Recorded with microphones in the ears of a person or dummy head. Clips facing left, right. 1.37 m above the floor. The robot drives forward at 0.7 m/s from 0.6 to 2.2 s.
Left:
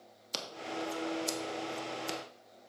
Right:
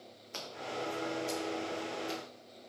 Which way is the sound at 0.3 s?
50° left (ahead or behind).